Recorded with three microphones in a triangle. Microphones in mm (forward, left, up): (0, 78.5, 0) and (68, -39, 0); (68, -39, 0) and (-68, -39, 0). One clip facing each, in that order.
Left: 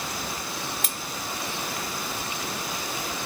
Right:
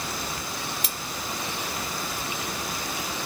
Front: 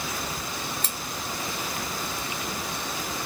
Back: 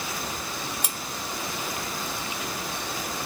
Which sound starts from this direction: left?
Cutlery clinking, at 0.8 s.